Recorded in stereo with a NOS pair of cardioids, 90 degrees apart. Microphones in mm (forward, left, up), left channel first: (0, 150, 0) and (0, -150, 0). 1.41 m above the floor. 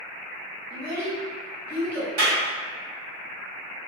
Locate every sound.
0.7 s a child speaking: 10° right, 1.6 m
2.2 s a clap: 65° right, 1.5 m